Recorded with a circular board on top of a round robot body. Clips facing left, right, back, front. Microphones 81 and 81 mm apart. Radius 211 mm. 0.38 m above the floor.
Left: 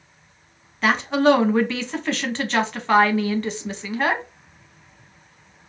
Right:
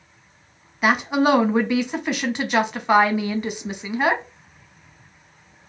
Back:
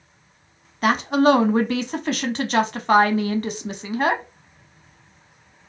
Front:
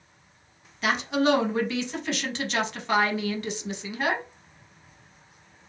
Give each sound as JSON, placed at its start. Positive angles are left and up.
{"t": 0.8, "sound": "a woman speaking", "azimuth_deg": -165, "distance_m": 1.0}